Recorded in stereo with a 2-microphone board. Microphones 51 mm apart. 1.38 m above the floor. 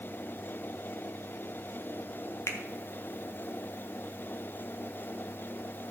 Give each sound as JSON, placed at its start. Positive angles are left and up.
{"t": 2.5, "sound": "a finger snap", "side_deg": 65, "distance_m": 1.2}